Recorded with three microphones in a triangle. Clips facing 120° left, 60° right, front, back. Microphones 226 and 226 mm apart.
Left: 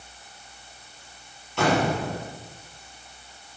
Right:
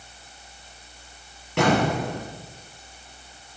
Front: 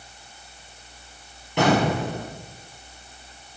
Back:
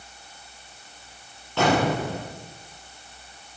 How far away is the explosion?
About 4.5 m.